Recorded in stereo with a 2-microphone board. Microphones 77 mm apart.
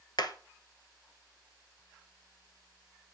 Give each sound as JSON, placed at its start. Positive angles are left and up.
{"t": 0.2, "sound": "hammering", "side_deg": 65, "distance_m": 1.0}